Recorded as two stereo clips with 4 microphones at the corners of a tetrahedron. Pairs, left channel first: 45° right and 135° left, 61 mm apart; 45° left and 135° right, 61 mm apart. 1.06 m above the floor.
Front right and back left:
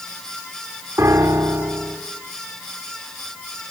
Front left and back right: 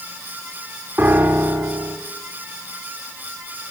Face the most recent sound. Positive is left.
turn(degrees=170)